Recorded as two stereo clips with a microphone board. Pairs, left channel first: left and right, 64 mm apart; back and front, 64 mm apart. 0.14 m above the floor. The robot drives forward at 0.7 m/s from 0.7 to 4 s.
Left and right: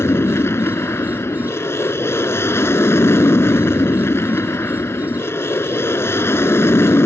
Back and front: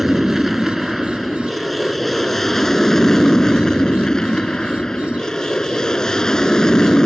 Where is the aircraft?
85° left; by 7.1 s 105° left.